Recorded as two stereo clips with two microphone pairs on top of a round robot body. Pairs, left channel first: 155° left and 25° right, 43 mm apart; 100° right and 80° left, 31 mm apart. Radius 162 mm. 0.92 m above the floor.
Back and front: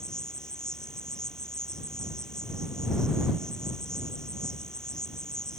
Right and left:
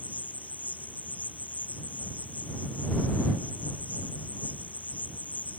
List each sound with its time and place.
0.0 s an insect: 130° right